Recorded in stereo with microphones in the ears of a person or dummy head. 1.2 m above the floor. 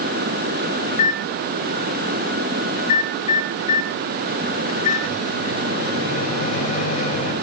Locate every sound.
0.9 s a microwave: 45° left (ahead or behind), 4.5 m